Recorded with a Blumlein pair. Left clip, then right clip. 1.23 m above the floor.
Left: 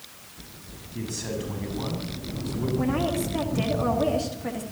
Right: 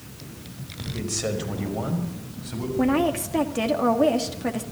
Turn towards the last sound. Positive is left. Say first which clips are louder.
# right 6 dB
turn(degrees=-20)